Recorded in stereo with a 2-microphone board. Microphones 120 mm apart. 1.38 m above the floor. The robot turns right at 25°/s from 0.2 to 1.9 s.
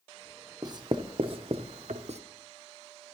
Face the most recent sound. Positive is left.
turn(degrees=-65)  # may be behind; listen again after turning